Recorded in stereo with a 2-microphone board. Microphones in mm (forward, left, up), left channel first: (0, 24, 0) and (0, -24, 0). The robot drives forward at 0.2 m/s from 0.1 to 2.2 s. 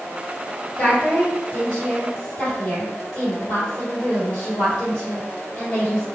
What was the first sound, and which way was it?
A woman speaking, 20° left (ahead or behind).